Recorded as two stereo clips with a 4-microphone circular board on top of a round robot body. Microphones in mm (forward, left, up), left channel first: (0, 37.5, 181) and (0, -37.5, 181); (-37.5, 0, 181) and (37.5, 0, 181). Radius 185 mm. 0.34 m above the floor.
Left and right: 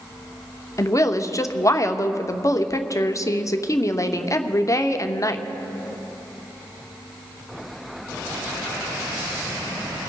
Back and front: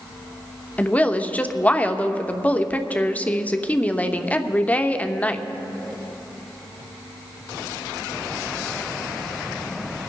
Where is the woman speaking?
115° left, 1.1 m.